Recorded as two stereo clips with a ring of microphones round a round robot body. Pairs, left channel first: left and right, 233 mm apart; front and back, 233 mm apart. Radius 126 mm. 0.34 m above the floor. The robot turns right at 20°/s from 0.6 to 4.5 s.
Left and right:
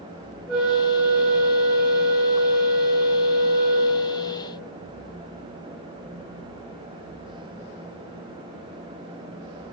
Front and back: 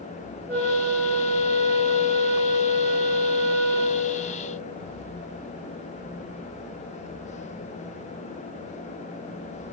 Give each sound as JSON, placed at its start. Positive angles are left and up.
{"t": 0.5, "sound": "a flute", "azimuth_deg": 180, "distance_m": 1.0}